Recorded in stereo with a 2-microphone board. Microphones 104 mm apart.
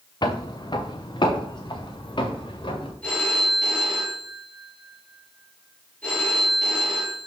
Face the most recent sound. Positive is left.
turn(degrees=15)  # may be behind; listen again after turning